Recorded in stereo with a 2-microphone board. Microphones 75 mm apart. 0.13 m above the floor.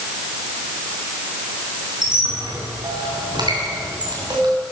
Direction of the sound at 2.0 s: 80° right.